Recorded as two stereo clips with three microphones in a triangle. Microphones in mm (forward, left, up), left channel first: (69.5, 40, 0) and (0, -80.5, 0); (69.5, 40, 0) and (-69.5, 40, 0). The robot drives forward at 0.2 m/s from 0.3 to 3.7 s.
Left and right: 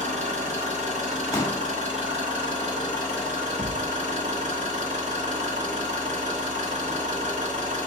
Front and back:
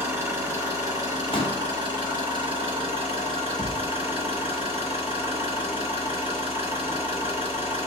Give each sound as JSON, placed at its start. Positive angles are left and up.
{"t": 0.0, "sound": "an engine running", "azimuth_deg": -115, "distance_m": 1.1}
{"t": 1.3, "sound": "a pop", "azimuth_deg": 0, "distance_m": 0.7}
{"t": 3.6, "sound": "a thud", "azimuth_deg": 175, "distance_m": 0.6}